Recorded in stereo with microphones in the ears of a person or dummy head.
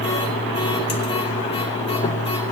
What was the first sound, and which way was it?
A machine running, 30° left (ahead or behind).